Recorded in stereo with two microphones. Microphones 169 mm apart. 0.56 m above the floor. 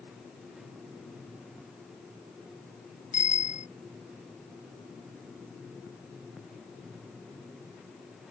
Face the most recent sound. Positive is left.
turn(degrees=50)  # may be behind; listen again after turning